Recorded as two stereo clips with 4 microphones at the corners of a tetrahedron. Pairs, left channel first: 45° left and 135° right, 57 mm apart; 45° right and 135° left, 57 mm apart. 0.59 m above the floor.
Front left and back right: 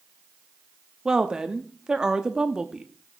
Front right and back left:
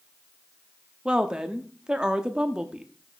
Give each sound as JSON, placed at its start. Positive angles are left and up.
{"t": 1.1, "sound": "a woman speaking", "azimuth_deg": 175, "distance_m": 0.8}